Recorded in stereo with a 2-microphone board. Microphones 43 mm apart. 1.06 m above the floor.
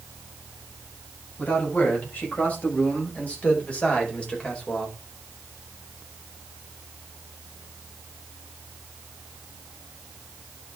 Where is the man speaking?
40° left (ahead or behind), 6 m; by 5.0 s 20° left (ahead or behind), 4 m.